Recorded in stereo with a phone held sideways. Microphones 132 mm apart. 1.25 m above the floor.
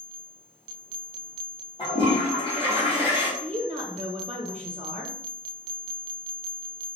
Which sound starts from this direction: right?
A woman speaking, at 3.4 s.